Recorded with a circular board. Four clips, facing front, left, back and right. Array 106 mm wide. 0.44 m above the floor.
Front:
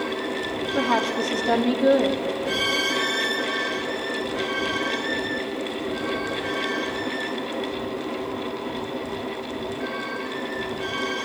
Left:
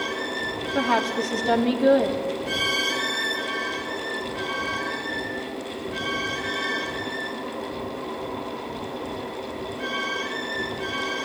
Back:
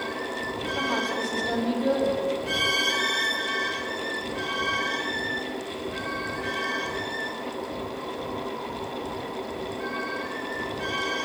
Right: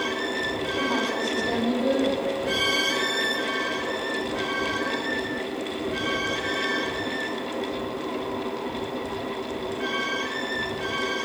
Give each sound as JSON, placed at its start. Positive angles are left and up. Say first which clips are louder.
{"t": 0.8, "sound": "a woman speaking", "louder": "left 5 dB, front 6 dB", "azimuth_deg": 65, "distance_m": 3.5}